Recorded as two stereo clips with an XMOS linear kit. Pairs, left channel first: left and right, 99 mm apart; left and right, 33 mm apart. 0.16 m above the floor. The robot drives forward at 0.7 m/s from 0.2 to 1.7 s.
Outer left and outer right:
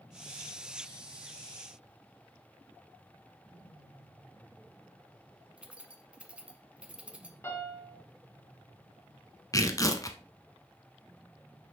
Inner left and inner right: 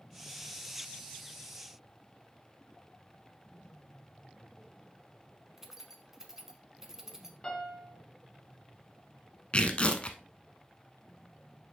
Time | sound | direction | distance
5.6 | keys jangling | 10° right (ahead or behind) | 0.8 m
7.4 | a piano | 25° left (ahead or behind) | 1.8 m
9.5 | tearing paper | 30° left (ahead or behind) | 0.8 m